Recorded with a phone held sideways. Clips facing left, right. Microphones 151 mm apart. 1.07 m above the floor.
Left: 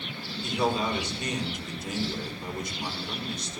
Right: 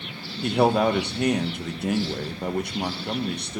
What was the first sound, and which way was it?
A man speaking, 65° right (ahead or behind).